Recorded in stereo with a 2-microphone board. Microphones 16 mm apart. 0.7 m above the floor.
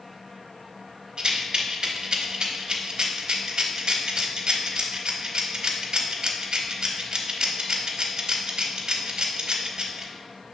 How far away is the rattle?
About 0.7 m.